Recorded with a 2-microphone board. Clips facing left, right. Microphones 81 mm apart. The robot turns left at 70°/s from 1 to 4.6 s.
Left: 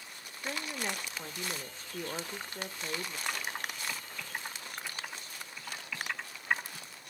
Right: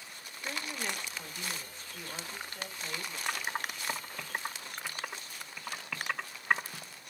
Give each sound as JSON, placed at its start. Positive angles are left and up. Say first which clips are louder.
{"t": 0.4, "sound": "a woman speaking", "louder": "left 1 dB", "azimuth_deg": 165, "distance_m": 1.0}
{"t": 3.3, "sound": "typing on a keyboard", "louder": "right 4 dB", "side_deg": -5, "distance_m": 2.5}